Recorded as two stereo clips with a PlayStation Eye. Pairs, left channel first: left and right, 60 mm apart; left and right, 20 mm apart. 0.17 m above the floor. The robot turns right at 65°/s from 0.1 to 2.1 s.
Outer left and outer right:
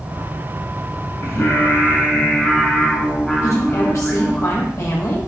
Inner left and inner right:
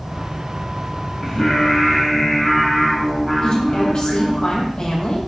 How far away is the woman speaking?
About 4.5 m.